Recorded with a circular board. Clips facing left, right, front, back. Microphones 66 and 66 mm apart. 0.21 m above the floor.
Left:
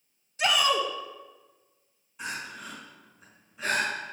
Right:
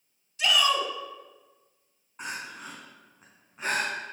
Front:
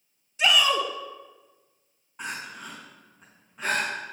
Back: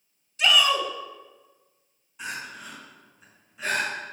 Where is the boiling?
No boiling in this recording.